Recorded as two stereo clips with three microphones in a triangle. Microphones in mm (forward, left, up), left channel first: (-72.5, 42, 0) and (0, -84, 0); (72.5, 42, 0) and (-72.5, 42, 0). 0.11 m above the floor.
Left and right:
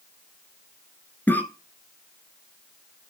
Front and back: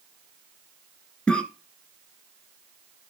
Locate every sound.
1.3 s a cough: 70° left, 1.1 m